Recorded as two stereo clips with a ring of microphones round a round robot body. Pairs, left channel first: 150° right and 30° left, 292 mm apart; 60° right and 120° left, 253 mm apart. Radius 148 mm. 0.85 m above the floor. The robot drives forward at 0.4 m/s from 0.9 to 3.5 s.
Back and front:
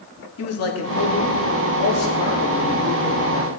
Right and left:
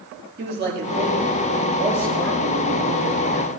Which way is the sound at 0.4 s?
175° left.